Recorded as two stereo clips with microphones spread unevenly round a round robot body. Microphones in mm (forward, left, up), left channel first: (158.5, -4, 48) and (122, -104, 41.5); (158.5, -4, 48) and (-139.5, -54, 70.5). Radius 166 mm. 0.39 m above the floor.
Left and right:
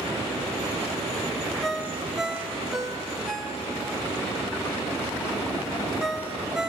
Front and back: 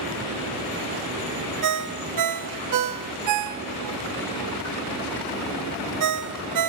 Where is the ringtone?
165° left, 0.8 m.